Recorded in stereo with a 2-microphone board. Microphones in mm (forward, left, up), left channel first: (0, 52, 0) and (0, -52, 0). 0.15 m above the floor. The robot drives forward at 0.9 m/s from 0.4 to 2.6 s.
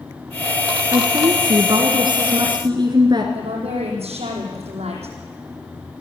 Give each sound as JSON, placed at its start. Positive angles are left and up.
{"t": 0.9, "sound": "a woman speaking", "side_deg": -45, "distance_m": 2.5}
{"t": 3.4, "sound": "a woman speaking", "side_deg": -75, "distance_m": 6.5}